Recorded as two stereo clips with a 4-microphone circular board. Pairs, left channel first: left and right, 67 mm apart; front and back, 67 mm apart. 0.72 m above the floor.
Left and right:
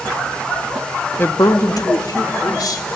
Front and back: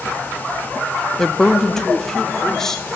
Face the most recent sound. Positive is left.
turn(degrees=85)